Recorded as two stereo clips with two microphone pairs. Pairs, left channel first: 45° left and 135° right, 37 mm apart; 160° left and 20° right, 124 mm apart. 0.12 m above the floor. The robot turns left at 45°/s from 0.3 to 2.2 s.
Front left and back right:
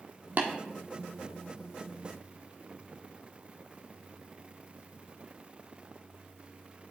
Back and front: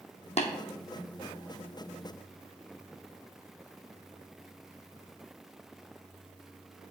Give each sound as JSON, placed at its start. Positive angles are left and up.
{"t": 0.4, "sound": "tapping", "azimuth_deg": -175, "distance_m": 1.3}